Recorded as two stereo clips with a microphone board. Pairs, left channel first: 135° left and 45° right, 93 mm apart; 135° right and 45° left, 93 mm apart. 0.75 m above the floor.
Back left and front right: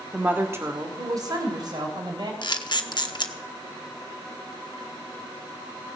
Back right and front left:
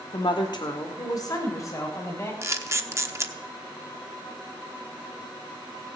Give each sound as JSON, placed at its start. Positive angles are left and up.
{"t": 0.1, "sound": "a woman speaking", "azimuth_deg": -120, "distance_m": 1.8}
{"t": 2.4, "sound": "a camera shutter", "azimuth_deg": 100, "distance_m": 0.9}